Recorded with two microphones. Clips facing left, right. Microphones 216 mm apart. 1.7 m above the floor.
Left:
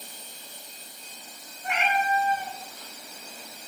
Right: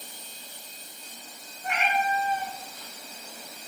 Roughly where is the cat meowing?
Right.